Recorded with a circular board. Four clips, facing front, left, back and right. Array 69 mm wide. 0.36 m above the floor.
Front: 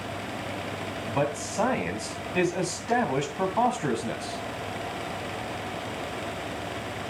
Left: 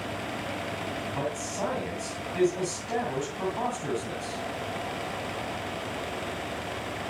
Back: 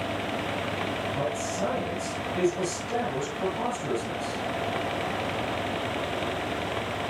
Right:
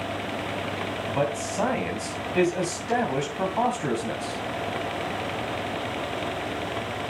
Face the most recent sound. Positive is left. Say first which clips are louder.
# right 6 dB, front 1 dB
turn(degrees=-40)